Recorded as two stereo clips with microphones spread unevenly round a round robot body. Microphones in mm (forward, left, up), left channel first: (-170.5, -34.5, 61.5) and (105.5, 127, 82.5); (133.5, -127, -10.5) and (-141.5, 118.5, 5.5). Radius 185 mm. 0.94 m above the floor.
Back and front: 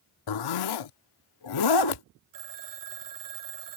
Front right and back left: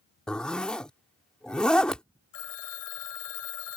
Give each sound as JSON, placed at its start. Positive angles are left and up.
{"t": 0.3, "sound": "a zipper", "azimuth_deg": -130}
{"t": 2.3, "sound": "a phone ringing", "azimuth_deg": 0}